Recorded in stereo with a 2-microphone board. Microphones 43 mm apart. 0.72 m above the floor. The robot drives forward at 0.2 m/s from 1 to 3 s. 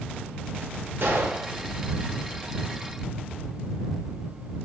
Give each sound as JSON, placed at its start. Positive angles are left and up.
{"t": 1.0, "sound": "a gunshot", "side_deg": -65, "distance_m": 0.8}